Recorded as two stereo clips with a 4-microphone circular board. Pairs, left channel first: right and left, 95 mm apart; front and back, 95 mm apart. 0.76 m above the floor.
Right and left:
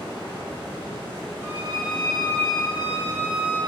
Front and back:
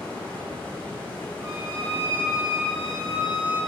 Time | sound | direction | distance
0.0 | running water | 65° left | 1.1 m
1.4 | a violin | 145° left | 1.8 m